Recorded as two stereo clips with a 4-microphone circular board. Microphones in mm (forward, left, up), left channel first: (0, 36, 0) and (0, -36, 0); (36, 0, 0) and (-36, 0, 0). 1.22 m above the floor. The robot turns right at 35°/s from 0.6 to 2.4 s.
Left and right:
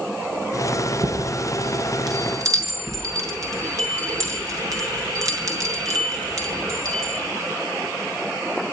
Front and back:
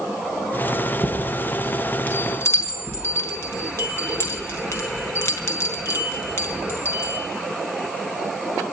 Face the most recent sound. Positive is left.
turn(degrees=-50)